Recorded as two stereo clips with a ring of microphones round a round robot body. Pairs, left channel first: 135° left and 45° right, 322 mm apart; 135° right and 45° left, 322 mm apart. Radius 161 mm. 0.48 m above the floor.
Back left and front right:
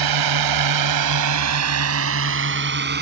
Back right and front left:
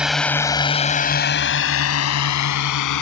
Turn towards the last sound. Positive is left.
turn(degrees=-105)